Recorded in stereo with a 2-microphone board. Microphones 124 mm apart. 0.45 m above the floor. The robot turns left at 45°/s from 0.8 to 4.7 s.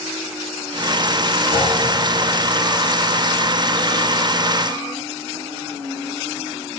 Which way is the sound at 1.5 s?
45° left (ahead or behind).